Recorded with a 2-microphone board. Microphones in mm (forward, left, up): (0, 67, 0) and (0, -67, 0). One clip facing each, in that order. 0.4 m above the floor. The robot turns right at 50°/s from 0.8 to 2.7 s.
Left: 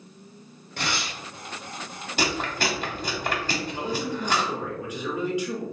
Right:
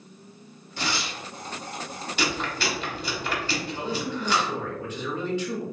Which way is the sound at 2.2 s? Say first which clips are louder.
Left 2 dB; 40° left (ahead or behind).